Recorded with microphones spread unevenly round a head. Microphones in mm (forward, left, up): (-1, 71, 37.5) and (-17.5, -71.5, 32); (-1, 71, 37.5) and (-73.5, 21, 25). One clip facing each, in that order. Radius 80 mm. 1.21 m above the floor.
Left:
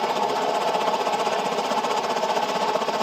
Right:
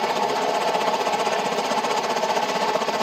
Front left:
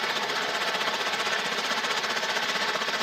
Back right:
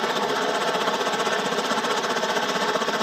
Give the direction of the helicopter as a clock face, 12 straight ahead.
6 o'clock.